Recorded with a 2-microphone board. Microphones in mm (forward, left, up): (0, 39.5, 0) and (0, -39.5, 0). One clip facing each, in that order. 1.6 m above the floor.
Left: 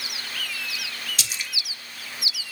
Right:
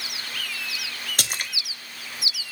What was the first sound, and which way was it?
A splash, 50° right (ahead or behind).